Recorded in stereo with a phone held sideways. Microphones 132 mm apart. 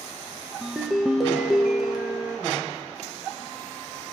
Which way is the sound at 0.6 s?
Centre (ahead or behind).